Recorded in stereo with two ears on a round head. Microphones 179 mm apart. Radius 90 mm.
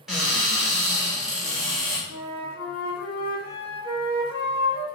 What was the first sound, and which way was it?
A cupboard door, 5° right (ahead or behind).